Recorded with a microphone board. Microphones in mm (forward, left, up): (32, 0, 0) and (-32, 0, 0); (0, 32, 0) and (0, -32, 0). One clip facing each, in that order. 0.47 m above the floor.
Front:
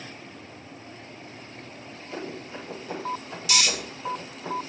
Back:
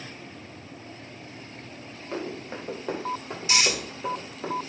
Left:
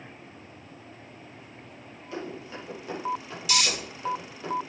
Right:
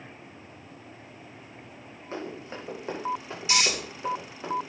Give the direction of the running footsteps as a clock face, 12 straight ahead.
5 o'clock.